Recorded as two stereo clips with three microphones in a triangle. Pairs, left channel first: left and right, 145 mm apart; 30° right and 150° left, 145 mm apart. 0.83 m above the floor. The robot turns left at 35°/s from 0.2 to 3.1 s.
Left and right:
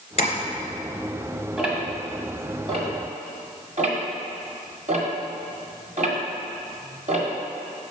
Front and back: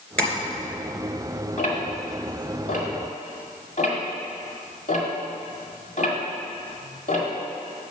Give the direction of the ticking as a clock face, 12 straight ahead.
12 o'clock.